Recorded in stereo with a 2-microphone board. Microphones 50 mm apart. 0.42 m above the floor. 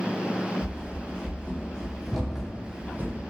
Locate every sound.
0.6 s running footsteps: 35° left (ahead or behind), 1.2 m; by 3.2 s 45° right (ahead or behind), 0.6 m